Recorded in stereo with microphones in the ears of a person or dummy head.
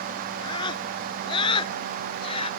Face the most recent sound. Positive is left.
turn(degrees=35)  # may be behind; listen again after turning